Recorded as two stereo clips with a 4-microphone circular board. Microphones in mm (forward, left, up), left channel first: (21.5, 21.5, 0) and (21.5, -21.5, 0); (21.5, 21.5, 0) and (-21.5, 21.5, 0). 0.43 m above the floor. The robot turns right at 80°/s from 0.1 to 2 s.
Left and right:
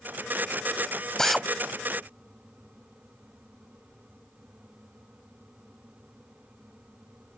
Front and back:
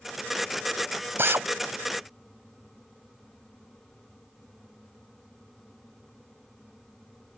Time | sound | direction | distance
1.2 | a drill | 165° left | ?